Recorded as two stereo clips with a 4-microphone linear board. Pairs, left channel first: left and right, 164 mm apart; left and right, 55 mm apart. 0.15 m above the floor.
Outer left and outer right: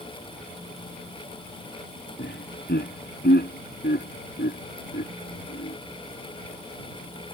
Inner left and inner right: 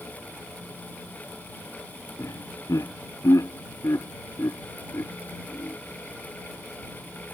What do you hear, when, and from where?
2.2 s laughter: 80° left; by 5.8 s 85° left